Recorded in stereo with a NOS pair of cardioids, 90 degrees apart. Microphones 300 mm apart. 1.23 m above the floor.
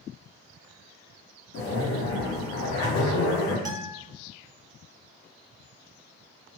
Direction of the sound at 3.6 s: 10° right.